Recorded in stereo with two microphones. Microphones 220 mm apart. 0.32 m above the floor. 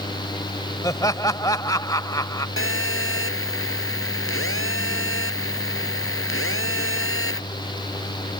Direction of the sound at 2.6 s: 75° left (ahead or behind).